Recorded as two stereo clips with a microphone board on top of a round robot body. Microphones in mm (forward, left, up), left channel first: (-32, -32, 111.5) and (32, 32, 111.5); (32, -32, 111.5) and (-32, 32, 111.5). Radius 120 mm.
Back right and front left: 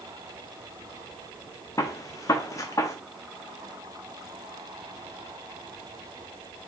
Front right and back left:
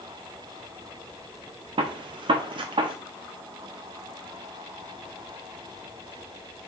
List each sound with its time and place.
1.8 s a gunshot: 170° left, 0.5 m